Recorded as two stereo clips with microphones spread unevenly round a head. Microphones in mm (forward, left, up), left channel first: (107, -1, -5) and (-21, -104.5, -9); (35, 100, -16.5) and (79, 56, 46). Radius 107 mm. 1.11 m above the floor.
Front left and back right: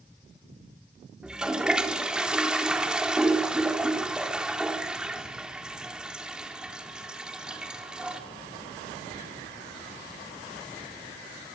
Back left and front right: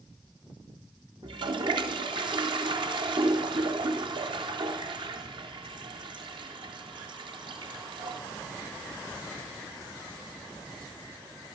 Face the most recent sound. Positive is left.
turn(degrees=-55)